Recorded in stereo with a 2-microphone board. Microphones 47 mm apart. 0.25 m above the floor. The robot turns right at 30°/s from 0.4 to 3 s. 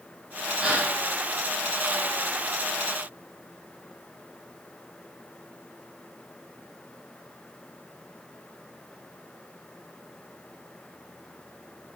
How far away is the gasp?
About 4 m.